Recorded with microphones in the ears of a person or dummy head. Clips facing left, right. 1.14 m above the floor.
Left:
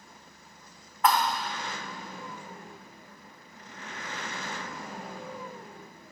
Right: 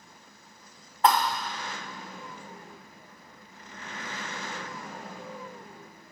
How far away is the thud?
About 1.0 m.